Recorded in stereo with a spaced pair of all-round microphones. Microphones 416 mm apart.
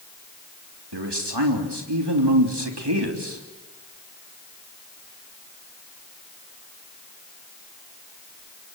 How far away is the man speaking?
About 3 m.